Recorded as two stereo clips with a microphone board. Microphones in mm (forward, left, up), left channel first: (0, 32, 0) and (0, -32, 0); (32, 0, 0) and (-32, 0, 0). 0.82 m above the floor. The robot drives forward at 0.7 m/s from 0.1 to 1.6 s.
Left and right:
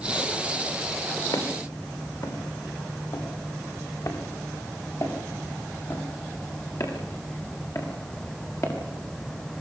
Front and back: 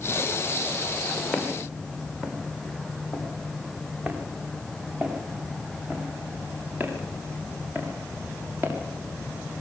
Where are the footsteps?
90° left, 5.5 m; by 8.7 s 125° left, 13 m.